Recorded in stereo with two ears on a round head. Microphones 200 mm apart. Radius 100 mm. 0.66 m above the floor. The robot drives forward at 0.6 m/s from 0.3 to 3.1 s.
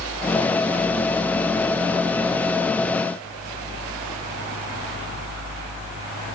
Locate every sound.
Only background noise.